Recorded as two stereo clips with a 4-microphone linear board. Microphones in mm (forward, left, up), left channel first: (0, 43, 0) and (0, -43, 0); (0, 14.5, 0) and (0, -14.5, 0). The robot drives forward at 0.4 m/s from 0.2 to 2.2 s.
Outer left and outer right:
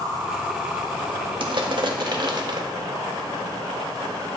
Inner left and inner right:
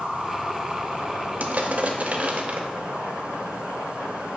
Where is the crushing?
65° right (ahead or behind), 0.8 m; by 2.6 s 60° right (ahead or behind), 0.8 m.